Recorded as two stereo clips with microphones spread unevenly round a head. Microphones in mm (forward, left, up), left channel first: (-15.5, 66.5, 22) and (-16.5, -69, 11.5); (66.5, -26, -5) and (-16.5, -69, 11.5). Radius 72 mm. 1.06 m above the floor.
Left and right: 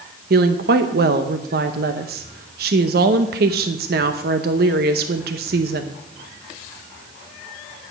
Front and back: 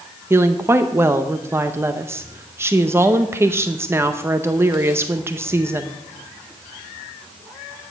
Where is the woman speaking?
85° right, 0.7 m.